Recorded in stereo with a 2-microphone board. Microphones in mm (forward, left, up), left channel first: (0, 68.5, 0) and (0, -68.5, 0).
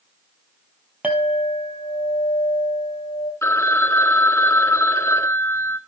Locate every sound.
1.0 s a clink: 10° right (ahead or behind), 2.0 m
3.4 s a phone ringing: 20° left (ahead or behind), 0.8 m